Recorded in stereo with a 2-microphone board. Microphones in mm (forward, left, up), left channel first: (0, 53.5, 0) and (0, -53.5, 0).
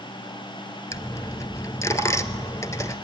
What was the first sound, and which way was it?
A dropped coin, 30° left (ahead or behind).